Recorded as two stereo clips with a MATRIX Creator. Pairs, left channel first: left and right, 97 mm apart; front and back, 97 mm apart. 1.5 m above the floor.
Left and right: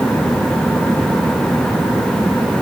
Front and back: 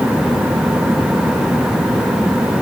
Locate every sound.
Only background noise.